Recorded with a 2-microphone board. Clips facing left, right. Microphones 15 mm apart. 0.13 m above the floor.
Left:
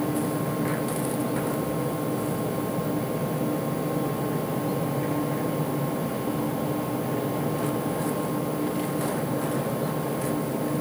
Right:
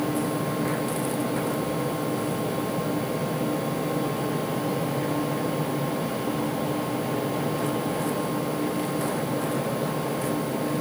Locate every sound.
Only background noise.